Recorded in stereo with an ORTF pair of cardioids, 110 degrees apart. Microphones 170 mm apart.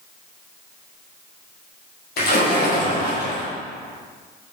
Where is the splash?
60° left, 2.5 m.